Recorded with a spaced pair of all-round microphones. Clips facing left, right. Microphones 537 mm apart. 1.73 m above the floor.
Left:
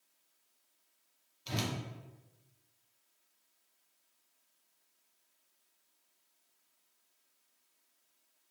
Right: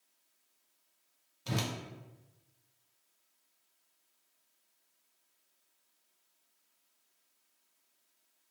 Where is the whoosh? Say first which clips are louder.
Right 1 dB; 70° right (ahead or behind), 0.6 m.